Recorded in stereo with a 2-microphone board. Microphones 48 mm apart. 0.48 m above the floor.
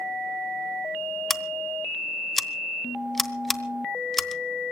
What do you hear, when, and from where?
1.3 s scissors: 5° left (ahead or behind), 1.0 m